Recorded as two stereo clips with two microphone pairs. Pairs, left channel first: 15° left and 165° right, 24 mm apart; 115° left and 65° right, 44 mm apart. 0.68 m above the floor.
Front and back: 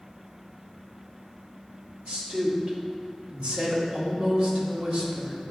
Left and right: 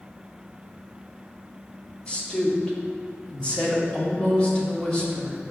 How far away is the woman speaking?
About 1.7 m.